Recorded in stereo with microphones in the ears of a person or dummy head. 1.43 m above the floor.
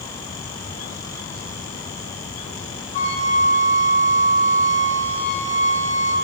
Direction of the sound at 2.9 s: 20° left (ahead or behind).